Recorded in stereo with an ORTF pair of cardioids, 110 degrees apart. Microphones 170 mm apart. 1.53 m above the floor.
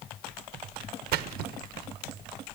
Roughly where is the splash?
Ahead right.